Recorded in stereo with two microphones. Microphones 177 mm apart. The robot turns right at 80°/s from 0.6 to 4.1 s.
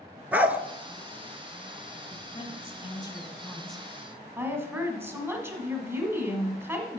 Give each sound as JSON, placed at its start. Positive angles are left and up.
{"t": 0.3, "sound": "a dog barking", "side_deg": -10, "distance_m": 0.6}
{"t": 2.1, "sound": "a woman speaking", "side_deg": 20, "distance_m": 1.4}